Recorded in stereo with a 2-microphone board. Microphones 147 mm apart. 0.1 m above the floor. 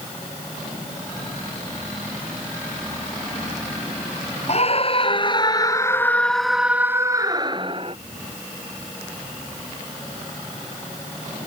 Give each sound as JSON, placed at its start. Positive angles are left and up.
{"t": 4.5, "sound": "a scream", "side_deg": 50}